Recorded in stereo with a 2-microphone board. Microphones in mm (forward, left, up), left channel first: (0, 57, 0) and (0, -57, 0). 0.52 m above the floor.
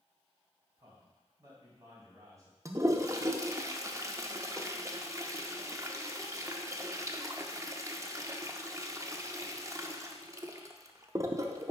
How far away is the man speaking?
About 3 m.